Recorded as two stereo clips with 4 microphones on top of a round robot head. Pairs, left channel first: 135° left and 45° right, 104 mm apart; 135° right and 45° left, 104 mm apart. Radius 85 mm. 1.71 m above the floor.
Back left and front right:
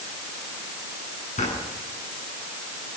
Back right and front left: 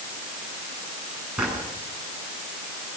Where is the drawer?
125° left, 10 m.